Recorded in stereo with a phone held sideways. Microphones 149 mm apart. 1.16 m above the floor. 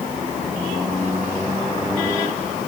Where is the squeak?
I don't hear a squeak.